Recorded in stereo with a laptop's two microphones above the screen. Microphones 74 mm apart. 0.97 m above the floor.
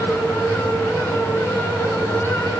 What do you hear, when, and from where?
0.0 s a fan: 35° left (ahead or behind), 8 m